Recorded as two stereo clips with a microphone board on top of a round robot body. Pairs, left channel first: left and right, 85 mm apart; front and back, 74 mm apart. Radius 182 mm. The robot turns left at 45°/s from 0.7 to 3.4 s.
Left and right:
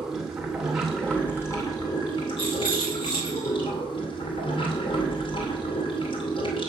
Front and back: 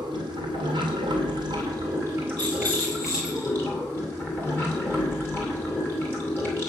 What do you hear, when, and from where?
0.0 s running water: 175° right, 2.5 m; by 6.7 s 65° left, 2.5 m
2.4 s a rattle: 80° left, 4.5 m; by 3.5 s 35° left, 4.5 m